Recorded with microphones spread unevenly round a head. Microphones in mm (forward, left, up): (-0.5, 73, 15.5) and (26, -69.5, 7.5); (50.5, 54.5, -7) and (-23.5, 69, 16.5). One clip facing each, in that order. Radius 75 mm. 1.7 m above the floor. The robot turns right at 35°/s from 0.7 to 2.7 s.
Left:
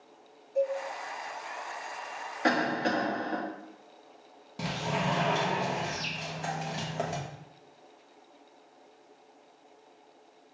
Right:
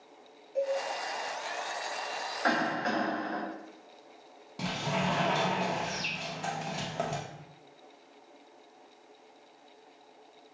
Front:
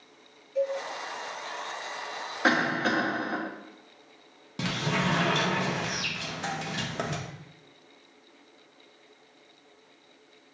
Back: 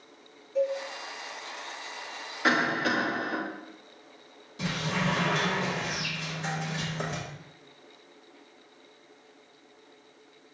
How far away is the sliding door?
About 0.8 m.